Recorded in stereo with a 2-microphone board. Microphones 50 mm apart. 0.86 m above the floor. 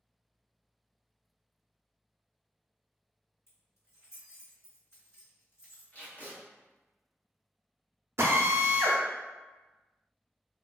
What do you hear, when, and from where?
3.5 s keys jangling: 70° left (ahead or behind), 1.9 m
5.9 s tape being pulled: 35° left (ahead or behind), 1.0 m
8.2 s a drill: 60° right (ahead or behind), 0.5 m